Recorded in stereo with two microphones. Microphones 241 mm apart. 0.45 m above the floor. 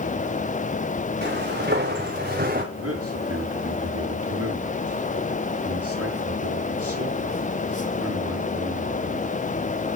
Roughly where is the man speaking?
Right.